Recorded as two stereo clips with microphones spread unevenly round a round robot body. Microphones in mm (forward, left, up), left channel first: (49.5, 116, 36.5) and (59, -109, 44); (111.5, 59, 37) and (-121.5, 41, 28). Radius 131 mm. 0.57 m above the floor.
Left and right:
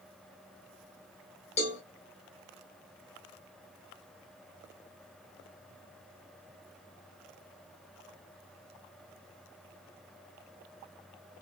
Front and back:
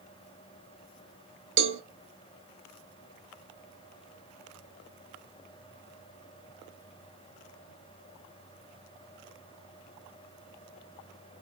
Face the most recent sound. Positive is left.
turn(degrees=155)